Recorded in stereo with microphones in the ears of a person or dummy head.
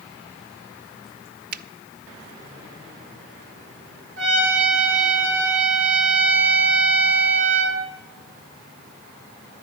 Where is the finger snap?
55° right (ahead or behind), 0.6 m.